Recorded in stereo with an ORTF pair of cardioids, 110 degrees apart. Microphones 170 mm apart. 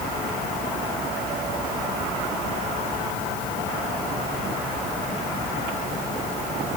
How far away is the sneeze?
No sneeze in this recording.